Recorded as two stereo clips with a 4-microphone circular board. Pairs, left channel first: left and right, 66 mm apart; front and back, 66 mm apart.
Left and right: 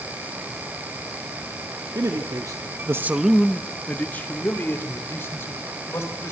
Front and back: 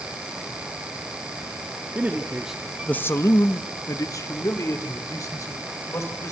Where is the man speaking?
115° right, 1.6 m; by 6.3 s 40° left, 4.5 m.